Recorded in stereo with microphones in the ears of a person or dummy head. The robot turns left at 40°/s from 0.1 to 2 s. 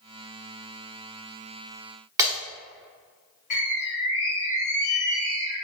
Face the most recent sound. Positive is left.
turn(degrees=35)  # may be behind; listen again after turning